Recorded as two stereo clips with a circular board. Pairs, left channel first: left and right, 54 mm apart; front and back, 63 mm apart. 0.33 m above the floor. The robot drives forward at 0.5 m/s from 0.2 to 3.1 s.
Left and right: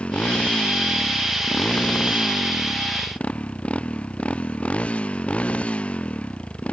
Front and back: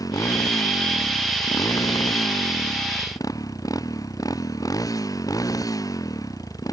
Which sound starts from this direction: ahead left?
A motorcycle, at 0.0 s.